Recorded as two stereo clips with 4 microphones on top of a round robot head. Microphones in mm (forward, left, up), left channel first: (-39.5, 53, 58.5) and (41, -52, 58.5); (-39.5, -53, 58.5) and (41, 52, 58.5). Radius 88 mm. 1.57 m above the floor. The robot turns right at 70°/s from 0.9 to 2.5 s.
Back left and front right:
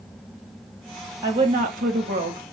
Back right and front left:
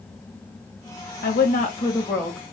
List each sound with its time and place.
1.2 s a woman speaking: 115° right, 1.6 m; by 2.4 s 35° right, 1.6 m